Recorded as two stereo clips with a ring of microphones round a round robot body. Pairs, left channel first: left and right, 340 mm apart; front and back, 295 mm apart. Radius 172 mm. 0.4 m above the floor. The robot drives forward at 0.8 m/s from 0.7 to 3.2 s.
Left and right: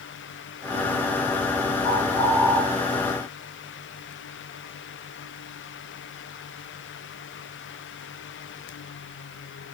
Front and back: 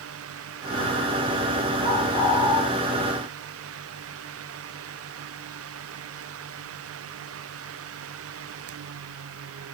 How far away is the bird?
About 6 m.